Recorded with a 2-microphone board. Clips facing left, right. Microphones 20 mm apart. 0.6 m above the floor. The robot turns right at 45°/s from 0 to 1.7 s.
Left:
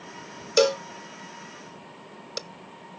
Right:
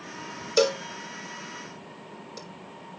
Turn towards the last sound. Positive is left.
turn(degrees=65)  # may be behind; listen again after turning